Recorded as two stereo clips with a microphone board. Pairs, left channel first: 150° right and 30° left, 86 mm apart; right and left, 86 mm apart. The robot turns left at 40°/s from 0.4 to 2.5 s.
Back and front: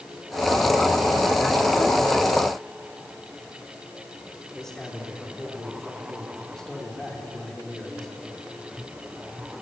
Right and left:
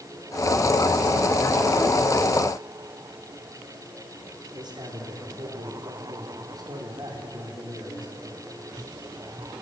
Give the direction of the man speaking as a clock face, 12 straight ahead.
8 o'clock.